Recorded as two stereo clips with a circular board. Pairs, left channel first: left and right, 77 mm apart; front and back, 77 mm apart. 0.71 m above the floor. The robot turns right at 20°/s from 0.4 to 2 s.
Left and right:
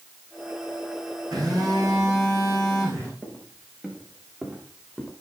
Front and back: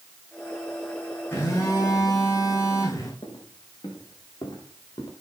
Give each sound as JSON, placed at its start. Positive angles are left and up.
{"t": 1.3, "sound": "a phone buzzing", "azimuth_deg": -55, "distance_m": 9.0}
{"t": 3.2, "sound": "footsteps", "azimuth_deg": -20, "distance_m": 4.5}